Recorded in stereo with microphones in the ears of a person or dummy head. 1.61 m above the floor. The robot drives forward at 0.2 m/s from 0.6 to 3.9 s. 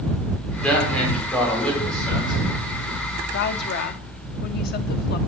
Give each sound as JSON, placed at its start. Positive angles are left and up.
{"t": 0.6, "sound": "a man speaking", "side_deg": 10, "distance_m": 4.0}
{"t": 3.3, "sound": "a woman speaking", "side_deg": 65, "distance_m": 0.8}